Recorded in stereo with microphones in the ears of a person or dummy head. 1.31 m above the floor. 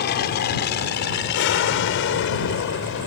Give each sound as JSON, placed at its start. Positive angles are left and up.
{"t": 0.0, "sound": "an aircraft", "side_deg": 50}